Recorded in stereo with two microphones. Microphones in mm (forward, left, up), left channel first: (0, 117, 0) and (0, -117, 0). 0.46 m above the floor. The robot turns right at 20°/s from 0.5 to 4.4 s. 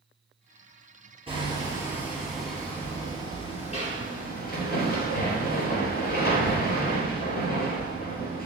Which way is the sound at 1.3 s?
20° right.